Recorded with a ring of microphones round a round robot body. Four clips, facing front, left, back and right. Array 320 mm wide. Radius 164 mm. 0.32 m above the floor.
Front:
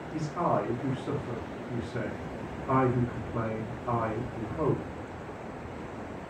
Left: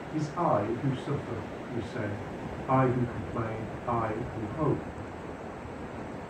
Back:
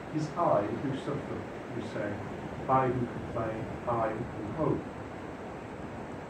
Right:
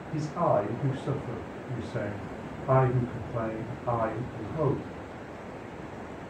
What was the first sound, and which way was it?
A man speaking, 95° right.